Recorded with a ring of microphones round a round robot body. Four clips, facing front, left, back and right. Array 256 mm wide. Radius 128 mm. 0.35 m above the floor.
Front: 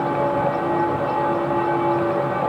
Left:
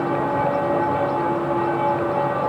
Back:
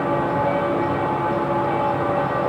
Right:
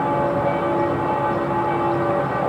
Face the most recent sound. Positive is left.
No sound to turn to.